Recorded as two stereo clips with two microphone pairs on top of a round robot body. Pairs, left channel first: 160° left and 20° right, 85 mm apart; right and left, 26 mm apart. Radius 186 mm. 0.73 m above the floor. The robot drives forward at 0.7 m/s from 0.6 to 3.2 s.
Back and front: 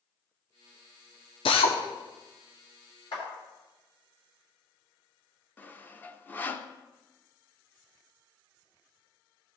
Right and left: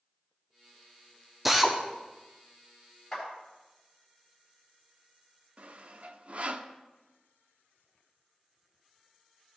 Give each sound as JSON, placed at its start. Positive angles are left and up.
{"t": 1.4, "sound": "a drill", "azimuth_deg": 170, "distance_m": 0.8}
{"t": 3.1, "sound": "a clap", "azimuth_deg": -175, "distance_m": 4.5}
{"t": 5.6, "sound": "sawing", "azimuth_deg": 90, "distance_m": 0.9}